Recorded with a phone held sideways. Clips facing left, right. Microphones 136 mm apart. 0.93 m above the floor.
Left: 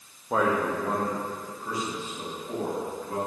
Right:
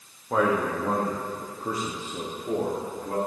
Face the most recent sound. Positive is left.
turn(degrees=-65)  # may be behind; listen again after turning